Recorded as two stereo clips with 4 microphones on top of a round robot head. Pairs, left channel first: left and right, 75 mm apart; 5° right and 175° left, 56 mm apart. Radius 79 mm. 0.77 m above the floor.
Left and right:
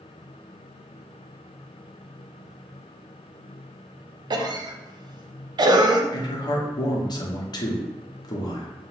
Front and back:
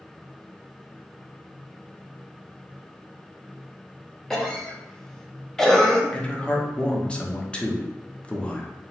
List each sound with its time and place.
4.3 s a cough: 90° right, 0.7 m
6.1 s a man speaking: 65° left, 0.9 m